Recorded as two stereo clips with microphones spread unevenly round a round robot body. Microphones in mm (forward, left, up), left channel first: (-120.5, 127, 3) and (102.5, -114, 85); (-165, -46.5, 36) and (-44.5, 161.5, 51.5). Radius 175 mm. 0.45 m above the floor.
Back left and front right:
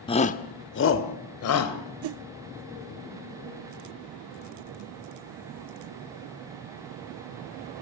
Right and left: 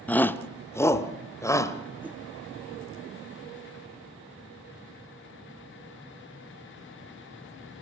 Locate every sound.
0.1 s a shout: 165° left, 0.8 m
2.0 s a whoosh: 25° right, 0.5 m